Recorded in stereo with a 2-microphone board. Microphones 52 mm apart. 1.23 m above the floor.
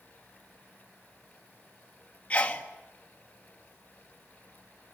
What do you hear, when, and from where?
2.3 s a sneeze: 25° left (ahead or behind), 2.0 m